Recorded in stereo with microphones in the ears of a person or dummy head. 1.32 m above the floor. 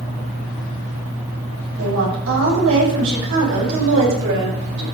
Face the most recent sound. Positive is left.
turn(degrees=-75)  # may be behind; listen again after turning